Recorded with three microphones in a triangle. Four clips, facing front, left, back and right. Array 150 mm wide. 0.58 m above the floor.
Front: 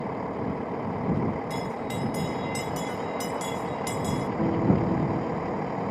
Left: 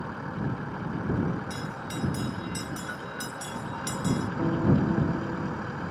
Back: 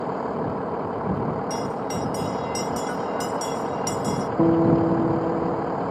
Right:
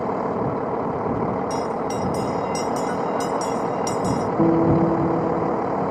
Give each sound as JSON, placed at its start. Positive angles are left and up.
{"t": 0.0, "sound": "a vehicle", "azimuth_deg": -110}
{"t": 1.5, "sound": "a bell", "azimuth_deg": -120}
{"t": 4.4, "sound": "a guitar", "azimuth_deg": -135}